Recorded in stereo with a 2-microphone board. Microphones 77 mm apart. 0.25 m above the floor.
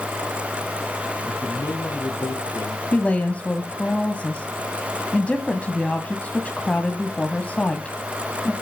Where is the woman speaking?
15° left (ahead or behind), 1.3 m.